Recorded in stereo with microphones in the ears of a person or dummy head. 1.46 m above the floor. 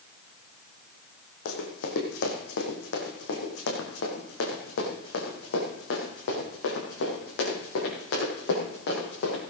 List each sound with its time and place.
1.4 s running footsteps: 70° left (ahead or behind), 4 m